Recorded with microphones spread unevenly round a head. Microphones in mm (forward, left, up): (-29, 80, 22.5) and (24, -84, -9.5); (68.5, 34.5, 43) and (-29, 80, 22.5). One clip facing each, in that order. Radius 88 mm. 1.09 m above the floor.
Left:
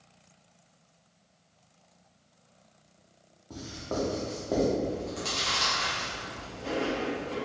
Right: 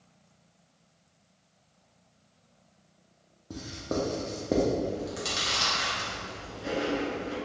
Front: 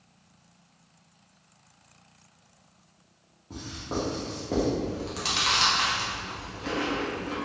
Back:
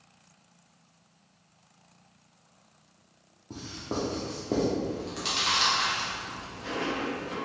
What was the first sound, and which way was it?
Writing, 135° right.